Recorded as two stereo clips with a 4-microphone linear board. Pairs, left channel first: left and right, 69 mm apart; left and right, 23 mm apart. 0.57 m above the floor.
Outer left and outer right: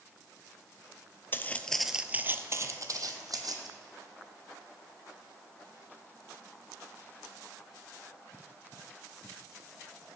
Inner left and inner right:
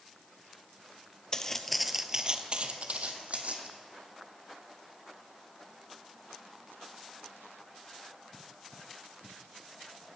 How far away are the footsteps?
About 0.6 m.